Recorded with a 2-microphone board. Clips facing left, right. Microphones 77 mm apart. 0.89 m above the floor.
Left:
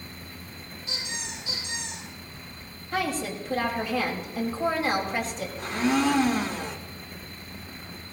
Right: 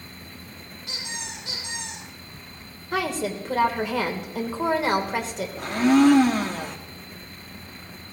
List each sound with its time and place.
0.9 s a squeak: 65° right (ahead or behind), 7.5 m
2.9 s a woman speaking: 75° right (ahead or behind), 3 m
5.6 s a blender: 55° right (ahead or behind), 1.7 m